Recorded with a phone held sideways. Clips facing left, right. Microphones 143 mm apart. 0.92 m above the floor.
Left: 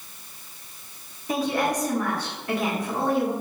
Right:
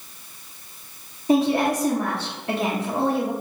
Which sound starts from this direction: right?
A woman speaking, at 1.3 s.